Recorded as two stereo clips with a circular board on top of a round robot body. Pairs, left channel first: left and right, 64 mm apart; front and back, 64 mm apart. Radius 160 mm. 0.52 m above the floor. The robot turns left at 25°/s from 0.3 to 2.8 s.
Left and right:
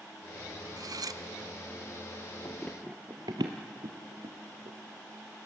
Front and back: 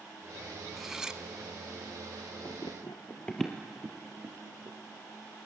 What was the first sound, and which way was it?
Cutlery clinking, 95° right.